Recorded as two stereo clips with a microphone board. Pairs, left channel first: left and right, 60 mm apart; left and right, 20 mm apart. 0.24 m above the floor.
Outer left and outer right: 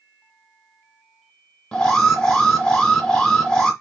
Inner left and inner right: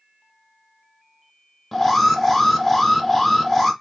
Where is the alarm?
15° left (ahead or behind), 1.3 m.